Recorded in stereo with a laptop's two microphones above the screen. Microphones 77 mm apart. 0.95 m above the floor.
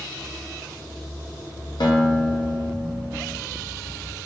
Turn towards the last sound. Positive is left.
turn(degrees=70)  # may be behind; listen again after turning